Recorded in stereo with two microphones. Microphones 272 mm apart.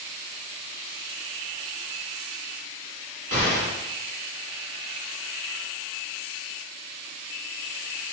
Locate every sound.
3.3 s an explosion: 60° left (ahead or behind), 1.2 m